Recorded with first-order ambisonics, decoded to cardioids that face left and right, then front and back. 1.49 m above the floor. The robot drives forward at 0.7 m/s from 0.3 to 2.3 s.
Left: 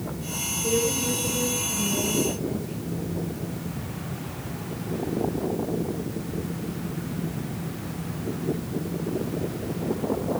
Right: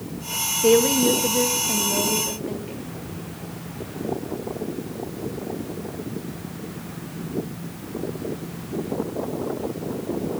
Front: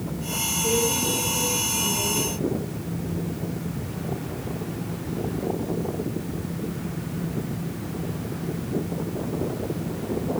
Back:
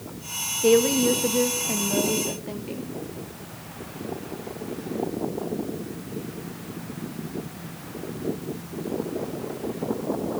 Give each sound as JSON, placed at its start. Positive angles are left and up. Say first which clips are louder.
{"t": 0.6, "sound": "a woman speaking", "louder": "right 8 dB, back 7 dB", "azimuth_deg": -130, "distance_m": 1.3}